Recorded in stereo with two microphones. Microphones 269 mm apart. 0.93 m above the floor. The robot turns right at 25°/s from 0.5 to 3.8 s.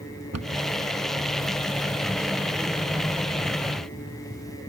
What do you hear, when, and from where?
0.3 s a cupboard door: 65° right (ahead or behind), 1.1 m